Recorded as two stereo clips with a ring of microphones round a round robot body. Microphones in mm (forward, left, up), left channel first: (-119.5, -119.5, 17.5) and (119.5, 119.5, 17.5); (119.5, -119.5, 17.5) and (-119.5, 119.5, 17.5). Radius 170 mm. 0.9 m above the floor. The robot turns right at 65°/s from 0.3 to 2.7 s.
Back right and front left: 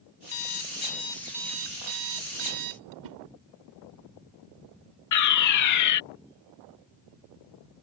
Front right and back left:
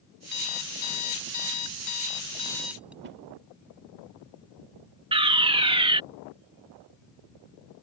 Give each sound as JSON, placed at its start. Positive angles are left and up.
{"t": 0.3, "sound": "an alarm clock", "azimuth_deg": -105}
{"t": 3.0, "sound": "a whoosh", "azimuth_deg": 75}
{"t": 5.1, "sound": "a fire alarm", "azimuth_deg": -155}